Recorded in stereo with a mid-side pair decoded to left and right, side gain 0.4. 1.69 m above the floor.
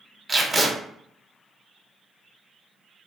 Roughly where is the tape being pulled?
Ahead right.